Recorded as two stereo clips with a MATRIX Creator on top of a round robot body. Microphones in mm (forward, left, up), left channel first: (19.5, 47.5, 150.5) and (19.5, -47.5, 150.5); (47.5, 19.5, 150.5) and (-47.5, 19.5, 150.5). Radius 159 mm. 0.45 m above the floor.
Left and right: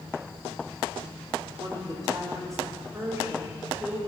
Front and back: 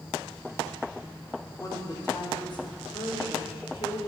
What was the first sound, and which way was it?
A woman speaking, 50° right.